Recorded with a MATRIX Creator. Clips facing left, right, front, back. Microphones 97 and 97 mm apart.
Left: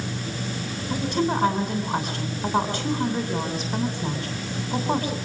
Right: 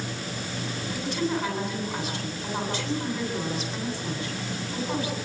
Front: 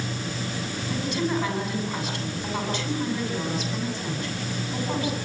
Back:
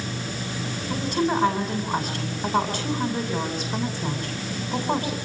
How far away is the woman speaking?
About 9 m.